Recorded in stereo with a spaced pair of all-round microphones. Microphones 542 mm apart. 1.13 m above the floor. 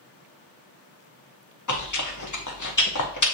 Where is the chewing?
35° left (ahead or behind), 0.7 m.